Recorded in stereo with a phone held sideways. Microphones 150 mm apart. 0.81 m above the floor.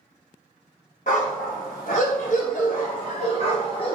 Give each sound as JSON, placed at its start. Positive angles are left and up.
{"t": 1.1, "sound": "a dog barking", "side_deg": 65, "distance_m": 1.4}